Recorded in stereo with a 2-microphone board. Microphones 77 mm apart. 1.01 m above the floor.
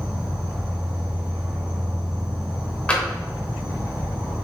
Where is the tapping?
15° left (ahead or behind), 0.9 m.